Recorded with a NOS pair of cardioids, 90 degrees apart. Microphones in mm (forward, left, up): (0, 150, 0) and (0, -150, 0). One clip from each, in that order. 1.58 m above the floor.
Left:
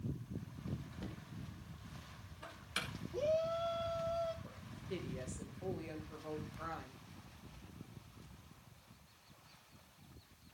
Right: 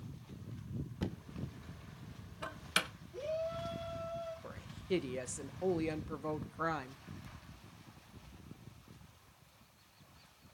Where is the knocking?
55° right, 1.6 m.